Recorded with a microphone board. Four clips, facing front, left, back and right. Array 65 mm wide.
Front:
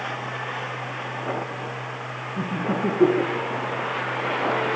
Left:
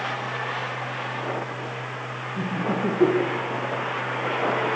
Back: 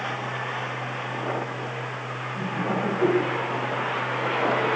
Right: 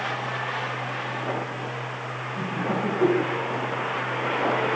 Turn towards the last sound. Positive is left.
turn(degrees=35)